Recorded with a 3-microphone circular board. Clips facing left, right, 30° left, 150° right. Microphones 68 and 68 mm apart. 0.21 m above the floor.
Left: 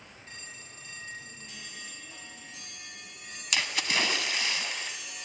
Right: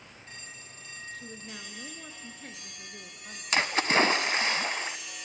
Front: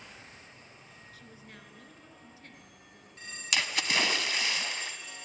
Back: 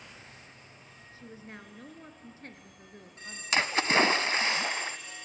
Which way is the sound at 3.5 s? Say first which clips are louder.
Right 6 dB, back 5 dB; 115° right.